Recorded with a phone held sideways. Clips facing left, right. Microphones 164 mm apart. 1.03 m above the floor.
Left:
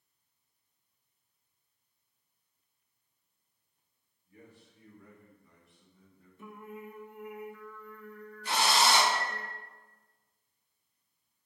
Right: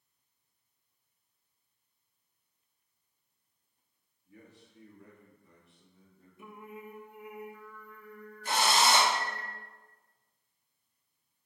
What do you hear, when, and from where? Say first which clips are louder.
4.2 s a man speaking: even; 75° right (ahead or behind), 1.9 m; by 6.3 s 60° right (ahead or behind), 2.5 m
6.4 s singing: left 1 dB; 10° right (ahead or behind), 0.8 m
8.4 s a drill: even; 50° right (ahead or behind), 1.5 m